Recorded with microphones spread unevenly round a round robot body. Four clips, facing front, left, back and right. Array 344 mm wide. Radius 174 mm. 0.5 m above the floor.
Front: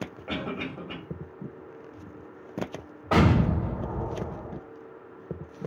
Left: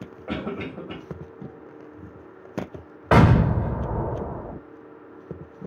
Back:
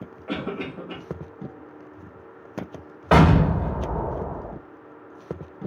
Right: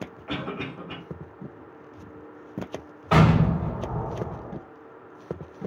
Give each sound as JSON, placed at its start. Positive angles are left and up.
{"t": 0.3, "sound": "a cough", "azimuth_deg": 65, "distance_m": 2.5}
{"t": 3.1, "sound": "an explosion", "azimuth_deg": 145, "distance_m": 1.0}